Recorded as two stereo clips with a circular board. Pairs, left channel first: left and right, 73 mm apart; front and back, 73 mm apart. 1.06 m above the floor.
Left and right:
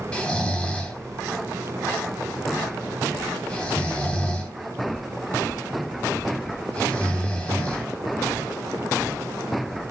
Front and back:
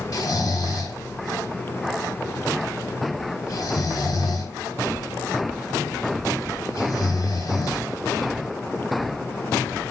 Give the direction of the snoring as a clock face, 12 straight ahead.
11 o'clock.